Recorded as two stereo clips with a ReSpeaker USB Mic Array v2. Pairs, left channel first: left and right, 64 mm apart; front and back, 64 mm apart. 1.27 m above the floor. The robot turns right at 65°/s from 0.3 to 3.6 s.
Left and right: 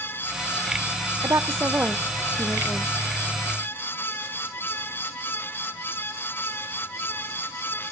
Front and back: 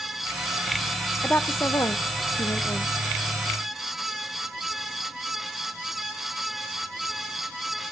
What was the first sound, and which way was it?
A woman speaking, 60° right.